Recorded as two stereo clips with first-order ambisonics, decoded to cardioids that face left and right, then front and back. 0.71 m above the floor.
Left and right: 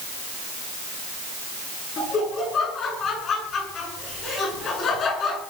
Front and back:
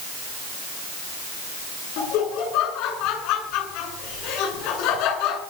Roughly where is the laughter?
Ahead left.